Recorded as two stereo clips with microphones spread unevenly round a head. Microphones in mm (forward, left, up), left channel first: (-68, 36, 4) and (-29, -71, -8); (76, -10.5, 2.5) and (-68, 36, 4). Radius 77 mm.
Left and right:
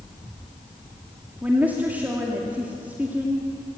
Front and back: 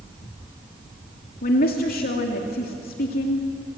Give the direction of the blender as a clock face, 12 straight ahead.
I don't hear a blender.